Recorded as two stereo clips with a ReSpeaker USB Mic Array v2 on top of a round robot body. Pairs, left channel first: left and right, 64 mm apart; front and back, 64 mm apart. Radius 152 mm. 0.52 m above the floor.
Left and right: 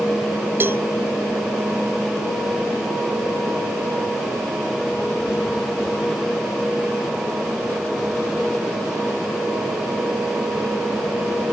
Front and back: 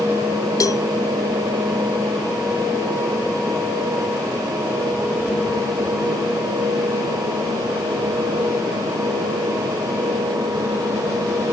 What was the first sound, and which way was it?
A cowbell, 35° right.